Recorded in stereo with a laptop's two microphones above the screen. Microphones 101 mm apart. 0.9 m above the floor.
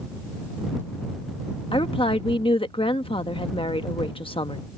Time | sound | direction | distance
1.7 | a woman speaking | 60° left (ahead or behind) | ?